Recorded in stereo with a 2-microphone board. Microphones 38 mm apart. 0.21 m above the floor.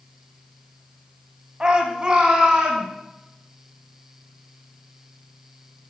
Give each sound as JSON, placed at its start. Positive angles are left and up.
{"t": 1.6, "sound": "a shout", "side_deg": -25, "distance_m": 1.0}